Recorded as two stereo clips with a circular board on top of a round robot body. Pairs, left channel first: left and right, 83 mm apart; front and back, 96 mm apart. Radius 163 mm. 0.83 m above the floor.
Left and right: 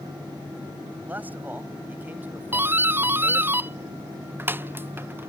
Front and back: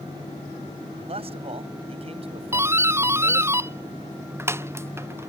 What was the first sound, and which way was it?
A man speaking, 160° right.